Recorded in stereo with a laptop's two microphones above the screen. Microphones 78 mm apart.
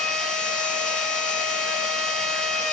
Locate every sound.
0.0 s a machine running: 5° left (ahead or behind), 4.5 m